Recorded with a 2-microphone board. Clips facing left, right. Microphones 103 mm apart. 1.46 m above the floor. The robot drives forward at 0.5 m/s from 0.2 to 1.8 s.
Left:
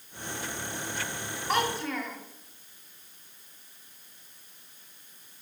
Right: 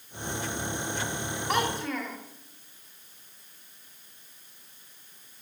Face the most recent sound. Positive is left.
turn(degrees=0)  # may be behind; listen again after turning